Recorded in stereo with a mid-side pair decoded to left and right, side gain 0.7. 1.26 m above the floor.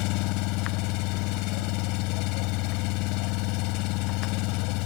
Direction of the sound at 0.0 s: 65° left.